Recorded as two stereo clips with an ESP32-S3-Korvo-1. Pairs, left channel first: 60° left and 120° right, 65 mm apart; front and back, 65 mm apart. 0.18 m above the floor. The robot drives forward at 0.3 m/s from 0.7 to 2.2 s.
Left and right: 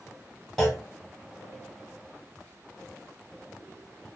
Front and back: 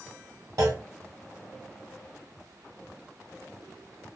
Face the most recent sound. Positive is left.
turn(degrees=150)